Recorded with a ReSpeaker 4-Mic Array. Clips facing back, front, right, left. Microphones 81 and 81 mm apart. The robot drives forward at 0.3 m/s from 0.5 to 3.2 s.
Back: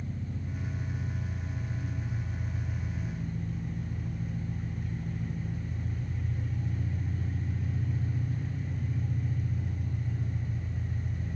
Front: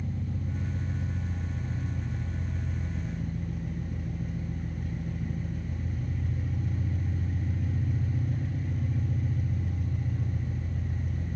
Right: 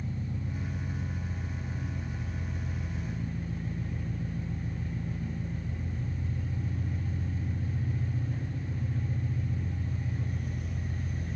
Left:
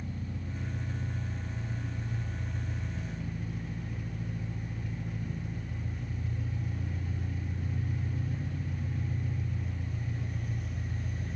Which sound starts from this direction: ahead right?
An engine running, at 0.0 s.